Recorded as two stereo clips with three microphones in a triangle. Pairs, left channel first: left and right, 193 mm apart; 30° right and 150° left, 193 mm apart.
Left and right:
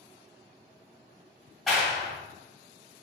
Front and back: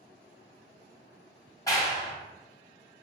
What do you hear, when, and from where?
1.7 s a clap: 5° left, 1.1 m